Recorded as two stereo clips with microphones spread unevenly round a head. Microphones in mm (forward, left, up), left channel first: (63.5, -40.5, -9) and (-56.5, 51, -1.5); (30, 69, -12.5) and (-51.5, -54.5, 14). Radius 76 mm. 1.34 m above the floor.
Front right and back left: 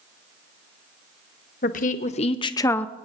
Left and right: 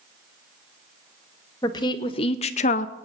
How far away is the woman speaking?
About 1.1 m.